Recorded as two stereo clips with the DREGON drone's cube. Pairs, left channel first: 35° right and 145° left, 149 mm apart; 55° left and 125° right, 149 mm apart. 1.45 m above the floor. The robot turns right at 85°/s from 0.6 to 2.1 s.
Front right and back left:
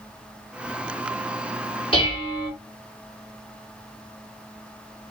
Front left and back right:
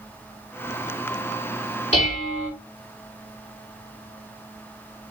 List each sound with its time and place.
1.9 s dishes clattering: 15° left, 2 m; by 2.5 s 30° left, 2 m